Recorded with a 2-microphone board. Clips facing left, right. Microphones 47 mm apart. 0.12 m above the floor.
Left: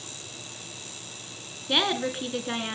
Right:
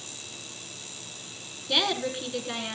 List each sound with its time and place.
1.7 s a woman speaking: 20° left (ahead or behind), 1.7 m